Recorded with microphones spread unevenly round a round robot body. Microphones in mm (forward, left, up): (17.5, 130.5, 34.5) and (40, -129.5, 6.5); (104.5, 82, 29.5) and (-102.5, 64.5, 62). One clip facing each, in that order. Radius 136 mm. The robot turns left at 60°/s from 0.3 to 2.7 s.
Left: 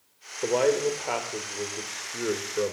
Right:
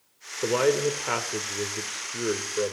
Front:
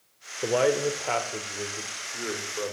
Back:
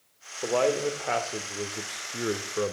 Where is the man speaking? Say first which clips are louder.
Even, front 2 dB; 40° right, 1.0 m; by 2.7 s 175° right, 1.0 m.